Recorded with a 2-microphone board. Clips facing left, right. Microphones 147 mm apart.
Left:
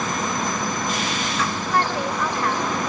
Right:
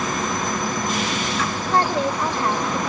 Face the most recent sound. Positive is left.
turn(degrees=-25)  # may be behind; listen again after turning